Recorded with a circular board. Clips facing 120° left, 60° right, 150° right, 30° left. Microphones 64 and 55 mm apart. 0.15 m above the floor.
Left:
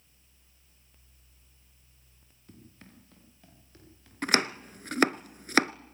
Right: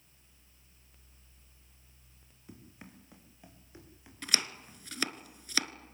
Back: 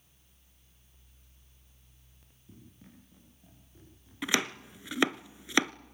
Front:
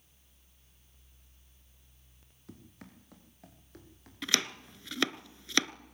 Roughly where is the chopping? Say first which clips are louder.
Left 10 dB, back 3 dB; behind left.